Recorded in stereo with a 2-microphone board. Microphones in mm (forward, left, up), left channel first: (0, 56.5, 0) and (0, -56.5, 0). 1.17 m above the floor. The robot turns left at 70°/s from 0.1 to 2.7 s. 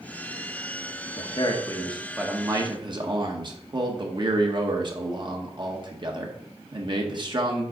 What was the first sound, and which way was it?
A man speaking, 65° left.